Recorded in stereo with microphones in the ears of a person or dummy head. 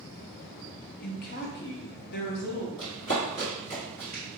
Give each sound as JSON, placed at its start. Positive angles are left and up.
{"t": 1.0, "sound": "a woman speaking", "side_deg": 55, "distance_m": 0.7}
{"t": 2.8, "sound": "running footsteps", "side_deg": 25, "distance_m": 1.8}